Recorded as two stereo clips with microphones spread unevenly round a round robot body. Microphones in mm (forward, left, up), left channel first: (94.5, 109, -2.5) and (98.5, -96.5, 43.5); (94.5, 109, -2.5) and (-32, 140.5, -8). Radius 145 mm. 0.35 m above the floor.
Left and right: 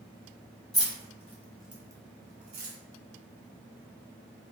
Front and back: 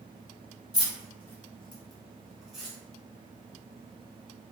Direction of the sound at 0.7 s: 30° left.